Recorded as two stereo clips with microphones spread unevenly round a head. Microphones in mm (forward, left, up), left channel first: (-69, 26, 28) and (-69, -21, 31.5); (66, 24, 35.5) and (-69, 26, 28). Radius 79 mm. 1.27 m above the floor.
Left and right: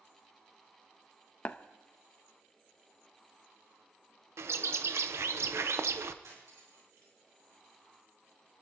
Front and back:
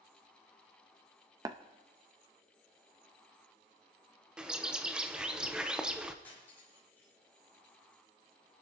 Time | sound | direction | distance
1.4 | tapping | 120° left | 0.6 m
4.4 | a bird | 100° right | 0.7 m
6.2 | cutlery clinking | 80° right | 4 m